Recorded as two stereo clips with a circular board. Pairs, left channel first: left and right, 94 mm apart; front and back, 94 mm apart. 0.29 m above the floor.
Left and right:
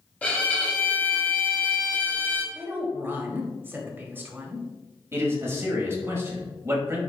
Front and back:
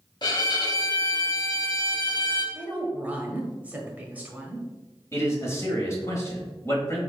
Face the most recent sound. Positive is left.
turn(degrees=-40)